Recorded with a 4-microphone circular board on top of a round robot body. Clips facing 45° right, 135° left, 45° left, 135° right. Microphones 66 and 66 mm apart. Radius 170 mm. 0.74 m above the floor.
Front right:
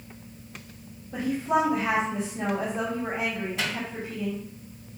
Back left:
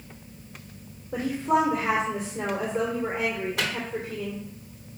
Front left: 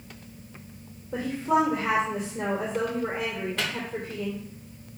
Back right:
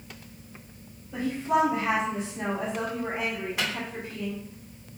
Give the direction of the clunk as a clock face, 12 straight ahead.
I don't hear a clunk.